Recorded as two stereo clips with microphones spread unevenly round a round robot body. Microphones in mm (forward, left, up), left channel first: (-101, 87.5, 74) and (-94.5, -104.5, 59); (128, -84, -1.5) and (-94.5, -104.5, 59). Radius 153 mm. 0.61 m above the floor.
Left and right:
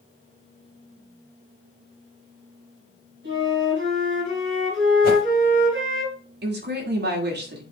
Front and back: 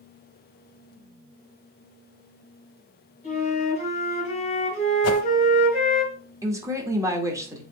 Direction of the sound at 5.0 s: 45° left.